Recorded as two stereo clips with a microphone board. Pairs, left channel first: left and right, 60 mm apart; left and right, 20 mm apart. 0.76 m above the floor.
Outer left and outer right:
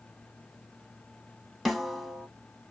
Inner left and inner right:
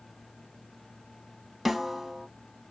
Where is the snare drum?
5° left (ahead or behind), 0.9 m.